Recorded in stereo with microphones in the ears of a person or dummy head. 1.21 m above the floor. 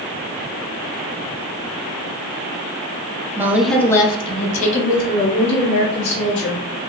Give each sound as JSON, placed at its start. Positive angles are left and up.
{"t": 3.4, "sound": "a woman speaking", "side_deg": -10, "distance_m": 0.8}